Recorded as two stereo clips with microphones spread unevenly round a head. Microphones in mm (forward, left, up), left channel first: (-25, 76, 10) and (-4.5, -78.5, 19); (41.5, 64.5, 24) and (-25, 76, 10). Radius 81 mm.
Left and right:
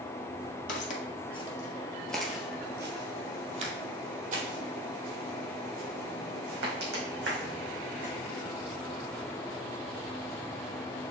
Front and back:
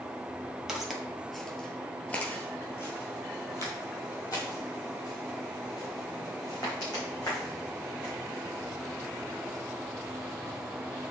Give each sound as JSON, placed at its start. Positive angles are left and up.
{"t": 0.7, "sound": "footsteps", "azimuth_deg": 80, "distance_m": 1.7}